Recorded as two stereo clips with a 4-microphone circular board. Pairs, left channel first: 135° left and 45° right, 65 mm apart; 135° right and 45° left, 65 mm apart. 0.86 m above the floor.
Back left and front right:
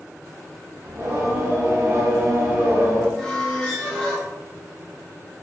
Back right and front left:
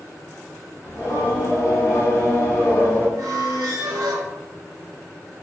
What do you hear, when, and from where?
0.8 s singing: 95° right, 1.2 m
3.2 s a squeak: 55° left, 1.0 m